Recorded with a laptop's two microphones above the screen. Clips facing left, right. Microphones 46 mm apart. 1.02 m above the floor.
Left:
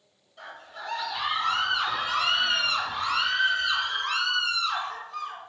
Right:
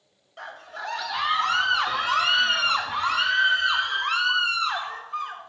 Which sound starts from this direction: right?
A scream, at 0.4 s.